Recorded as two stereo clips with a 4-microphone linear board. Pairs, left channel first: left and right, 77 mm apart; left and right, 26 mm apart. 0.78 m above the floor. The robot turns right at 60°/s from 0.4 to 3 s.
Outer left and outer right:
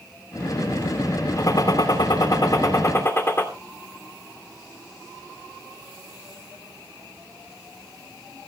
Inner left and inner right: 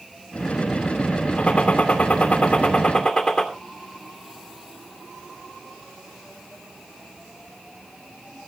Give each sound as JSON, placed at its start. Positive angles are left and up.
{"t": 1.4, "sound": "a gunshot", "azimuth_deg": 45, "distance_m": 2.5}